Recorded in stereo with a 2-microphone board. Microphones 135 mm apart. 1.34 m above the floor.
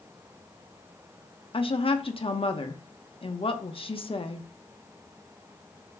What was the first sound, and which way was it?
A woman speaking, 45° left (ahead or behind).